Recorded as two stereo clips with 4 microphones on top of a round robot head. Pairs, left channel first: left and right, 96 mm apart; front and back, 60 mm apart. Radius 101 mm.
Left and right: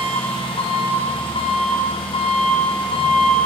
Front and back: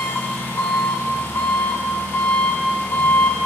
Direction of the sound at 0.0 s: 55° left.